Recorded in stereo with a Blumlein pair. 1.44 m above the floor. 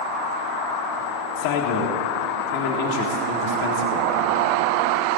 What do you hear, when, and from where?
1.4 s a man speaking: 45° left, 1.7 m